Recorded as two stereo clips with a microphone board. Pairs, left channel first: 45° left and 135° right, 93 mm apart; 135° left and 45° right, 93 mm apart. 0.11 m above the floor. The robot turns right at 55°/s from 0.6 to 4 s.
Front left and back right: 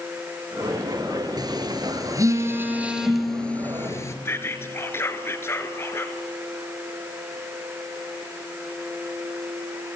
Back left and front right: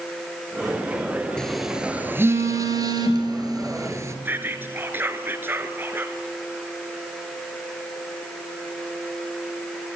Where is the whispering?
5° left, 1.3 m.